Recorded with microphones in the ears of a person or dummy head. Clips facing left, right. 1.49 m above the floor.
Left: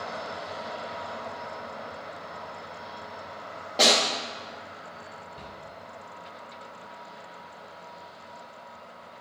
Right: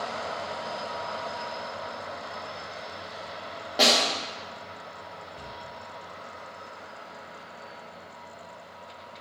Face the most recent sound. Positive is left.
turn(degrees=-30)  # may be behind; listen again after turning